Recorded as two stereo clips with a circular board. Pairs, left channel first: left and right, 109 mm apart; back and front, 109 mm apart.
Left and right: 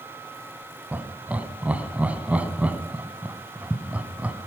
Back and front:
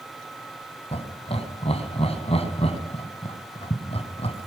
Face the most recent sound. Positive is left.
turn(degrees=-165)